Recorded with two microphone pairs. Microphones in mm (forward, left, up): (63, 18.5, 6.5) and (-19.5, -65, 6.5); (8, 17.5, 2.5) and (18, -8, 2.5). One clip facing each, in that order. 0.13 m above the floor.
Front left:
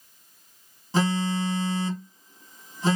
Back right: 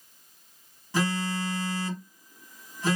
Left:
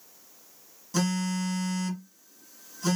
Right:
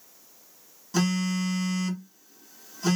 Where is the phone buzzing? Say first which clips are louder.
Front left 4 dB, right 2 dB; 5° left, 0.8 m.